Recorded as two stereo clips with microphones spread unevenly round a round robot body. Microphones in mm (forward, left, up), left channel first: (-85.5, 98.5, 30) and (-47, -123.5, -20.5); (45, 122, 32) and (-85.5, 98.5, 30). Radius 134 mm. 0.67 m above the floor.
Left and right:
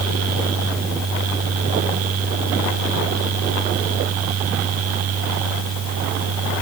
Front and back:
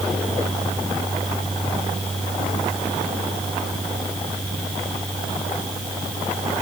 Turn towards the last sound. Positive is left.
No sound to turn to.